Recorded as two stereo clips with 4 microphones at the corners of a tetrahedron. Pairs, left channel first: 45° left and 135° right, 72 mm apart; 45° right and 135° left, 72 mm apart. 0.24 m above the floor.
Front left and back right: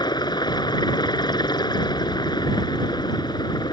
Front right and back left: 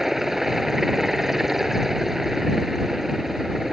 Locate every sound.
0.0 s a helicopter: 50° left